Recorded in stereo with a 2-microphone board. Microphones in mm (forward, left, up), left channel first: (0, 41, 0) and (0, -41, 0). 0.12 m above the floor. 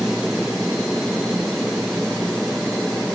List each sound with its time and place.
0.0 s an aircraft: centre (ahead or behind); by 3.2 s 5° left (ahead or behind)